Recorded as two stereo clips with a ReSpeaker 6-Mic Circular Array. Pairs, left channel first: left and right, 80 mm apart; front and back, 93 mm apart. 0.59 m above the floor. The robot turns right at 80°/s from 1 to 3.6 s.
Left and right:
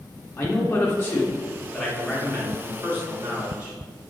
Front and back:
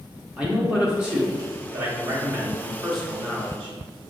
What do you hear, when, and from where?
0.4 s a man speaking: 110° left, 0.9 m; by 3.8 s 40° right, 0.9 m